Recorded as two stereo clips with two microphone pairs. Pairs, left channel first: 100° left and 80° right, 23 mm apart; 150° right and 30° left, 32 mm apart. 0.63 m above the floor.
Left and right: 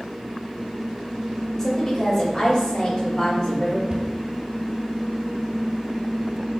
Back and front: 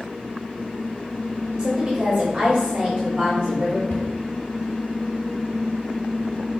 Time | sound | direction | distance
1.6 | a woman speaking | 65° left | 0.9 m
3.9 | a cupboard door | 140° right | 1.2 m